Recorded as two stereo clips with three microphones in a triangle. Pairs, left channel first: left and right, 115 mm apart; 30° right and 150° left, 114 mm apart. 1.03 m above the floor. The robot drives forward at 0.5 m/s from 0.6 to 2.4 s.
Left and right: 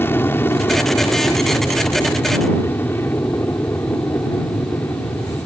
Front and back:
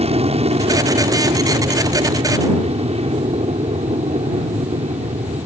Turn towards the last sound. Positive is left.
turn(degrees=160)